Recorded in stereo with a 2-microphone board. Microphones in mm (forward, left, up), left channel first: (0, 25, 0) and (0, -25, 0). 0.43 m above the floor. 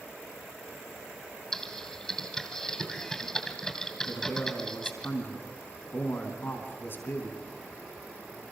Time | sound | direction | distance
1.5 | typing on a keyboard | 10° left (ahead or behind) | 2.5 m
4.1 | a man speaking | 45° left (ahead or behind) | 4.5 m